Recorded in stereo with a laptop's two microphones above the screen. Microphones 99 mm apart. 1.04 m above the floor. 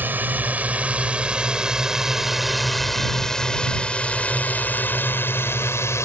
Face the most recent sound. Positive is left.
turn(degrees=30)  # may be behind; listen again after turning